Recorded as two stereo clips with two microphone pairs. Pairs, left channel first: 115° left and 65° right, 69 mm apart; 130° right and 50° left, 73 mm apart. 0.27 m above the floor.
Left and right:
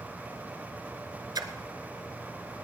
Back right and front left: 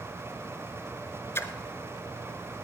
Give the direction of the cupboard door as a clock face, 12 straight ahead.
No cupboard door in this recording.